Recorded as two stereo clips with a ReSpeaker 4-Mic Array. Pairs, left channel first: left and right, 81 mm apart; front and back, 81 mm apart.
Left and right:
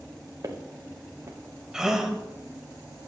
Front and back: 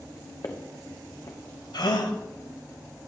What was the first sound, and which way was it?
Footsteps, 40° right.